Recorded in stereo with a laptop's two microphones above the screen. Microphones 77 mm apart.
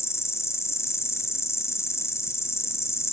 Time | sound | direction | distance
0.0 | an insect | 35° left (ahead or behind) | 2 m